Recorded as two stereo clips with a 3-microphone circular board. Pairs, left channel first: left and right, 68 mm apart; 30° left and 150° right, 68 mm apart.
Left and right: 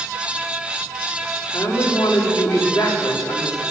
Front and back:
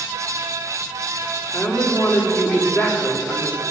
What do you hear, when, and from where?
1.5 s a woman speaking: 100° left, 3 m